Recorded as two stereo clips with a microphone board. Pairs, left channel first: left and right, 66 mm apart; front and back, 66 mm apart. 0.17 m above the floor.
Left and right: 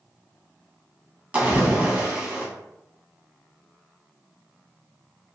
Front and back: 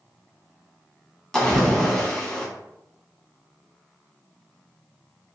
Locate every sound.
1.3 s a splash: 60° right, 0.9 m